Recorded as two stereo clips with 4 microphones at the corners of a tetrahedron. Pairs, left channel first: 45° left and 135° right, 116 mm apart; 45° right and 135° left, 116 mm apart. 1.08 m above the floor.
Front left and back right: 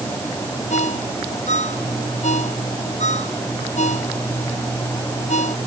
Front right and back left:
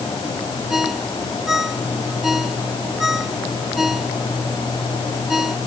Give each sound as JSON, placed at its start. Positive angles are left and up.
{"t": 0.7, "sound": "a ringtone", "azimuth_deg": 45}